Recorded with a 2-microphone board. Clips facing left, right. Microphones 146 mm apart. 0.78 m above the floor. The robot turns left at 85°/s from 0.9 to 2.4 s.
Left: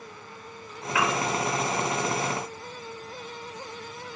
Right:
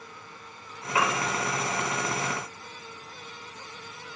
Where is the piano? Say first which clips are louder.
Left 1 dB; 30° right (ahead or behind), 2 m; by 1.2 s 50° right (ahead or behind), 2 m.